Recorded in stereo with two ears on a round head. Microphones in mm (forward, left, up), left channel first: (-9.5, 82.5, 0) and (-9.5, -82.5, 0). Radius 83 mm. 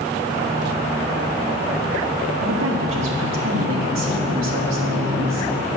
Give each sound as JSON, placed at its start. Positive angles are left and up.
{"t": 2.4, "sound": "a woman speaking", "side_deg": -85, "distance_m": 1.8}